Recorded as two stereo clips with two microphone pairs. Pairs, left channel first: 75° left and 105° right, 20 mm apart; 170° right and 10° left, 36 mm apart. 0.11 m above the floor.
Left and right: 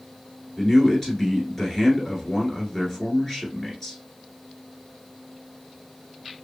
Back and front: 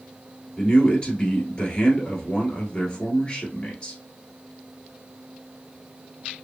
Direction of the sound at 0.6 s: 140° left.